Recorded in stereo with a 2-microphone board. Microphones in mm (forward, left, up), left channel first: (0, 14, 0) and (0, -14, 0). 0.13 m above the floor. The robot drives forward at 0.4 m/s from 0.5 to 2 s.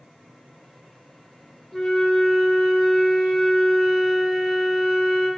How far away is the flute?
About 0.9 m.